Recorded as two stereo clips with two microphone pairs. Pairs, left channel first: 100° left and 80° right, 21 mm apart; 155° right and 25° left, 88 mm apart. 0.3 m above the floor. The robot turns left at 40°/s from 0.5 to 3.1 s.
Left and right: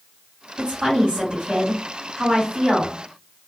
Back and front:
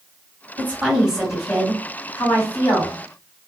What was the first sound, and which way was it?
A woman speaking, 35° right.